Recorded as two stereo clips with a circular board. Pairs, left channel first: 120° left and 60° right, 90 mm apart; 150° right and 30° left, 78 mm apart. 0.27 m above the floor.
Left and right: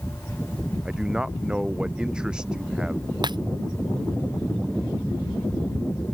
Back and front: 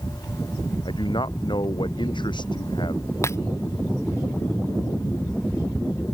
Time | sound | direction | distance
0.8 | a man speaking | 140° right | ?
3.2 | breaking glass | 95° right | ?